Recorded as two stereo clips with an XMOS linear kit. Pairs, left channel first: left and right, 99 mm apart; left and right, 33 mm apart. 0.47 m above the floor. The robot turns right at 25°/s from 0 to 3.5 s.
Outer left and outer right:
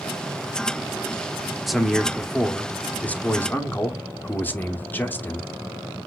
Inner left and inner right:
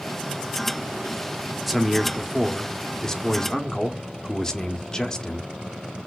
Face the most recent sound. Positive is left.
turn(degrees=20)  # may be behind; listen again after turning